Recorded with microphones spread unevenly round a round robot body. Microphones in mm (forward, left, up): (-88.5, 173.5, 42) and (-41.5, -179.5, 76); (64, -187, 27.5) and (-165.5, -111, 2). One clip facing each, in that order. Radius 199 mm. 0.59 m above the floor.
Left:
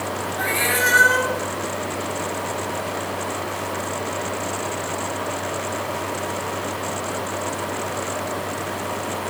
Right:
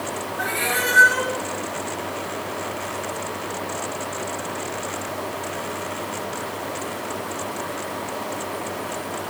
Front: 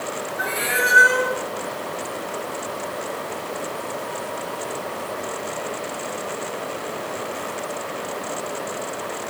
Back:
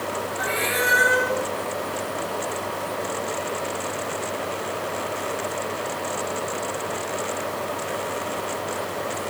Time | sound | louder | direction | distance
0.4 | a cat meowing | left 2 dB, even | 80° left | 3 m